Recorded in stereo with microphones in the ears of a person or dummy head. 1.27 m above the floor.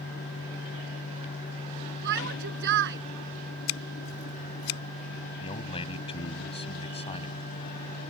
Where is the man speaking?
25° left (ahead or behind).